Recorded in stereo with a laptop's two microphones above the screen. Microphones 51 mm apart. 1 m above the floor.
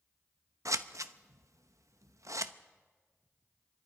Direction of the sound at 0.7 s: 80° right.